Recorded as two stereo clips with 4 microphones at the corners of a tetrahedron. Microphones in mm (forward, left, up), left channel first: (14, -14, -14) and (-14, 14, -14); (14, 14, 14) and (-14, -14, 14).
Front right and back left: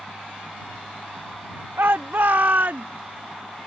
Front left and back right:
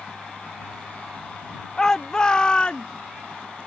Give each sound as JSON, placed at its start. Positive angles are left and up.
{"t": 1.8, "sound": "a shout", "azimuth_deg": 120}